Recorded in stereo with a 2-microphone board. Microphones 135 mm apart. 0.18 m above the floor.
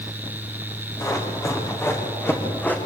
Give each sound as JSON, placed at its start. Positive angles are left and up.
{"t": 1.0, "sound": "running footsteps", "side_deg": 25, "distance_m": 6.0}